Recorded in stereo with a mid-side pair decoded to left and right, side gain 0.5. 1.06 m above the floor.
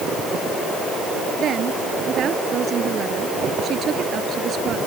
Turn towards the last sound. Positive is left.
turn(degrees=-55)